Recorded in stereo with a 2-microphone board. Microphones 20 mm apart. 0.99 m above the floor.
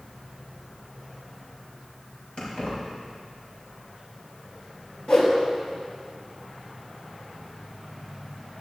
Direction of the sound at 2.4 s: 60° left (ahead or behind).